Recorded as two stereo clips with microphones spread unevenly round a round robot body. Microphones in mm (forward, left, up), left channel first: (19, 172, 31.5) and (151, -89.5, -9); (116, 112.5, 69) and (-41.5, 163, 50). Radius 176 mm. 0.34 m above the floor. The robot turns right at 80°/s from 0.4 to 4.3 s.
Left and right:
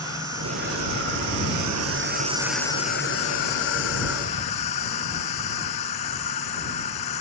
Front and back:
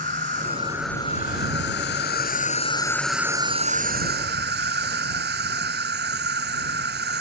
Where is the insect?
145° right; by 7.2 s 170° left.